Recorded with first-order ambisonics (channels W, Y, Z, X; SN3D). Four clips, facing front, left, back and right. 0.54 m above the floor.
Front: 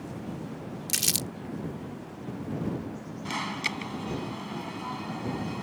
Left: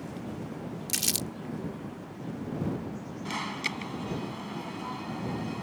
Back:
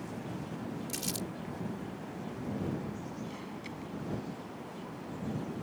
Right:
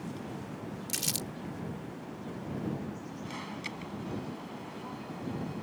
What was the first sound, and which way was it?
Crumpling, 25° left.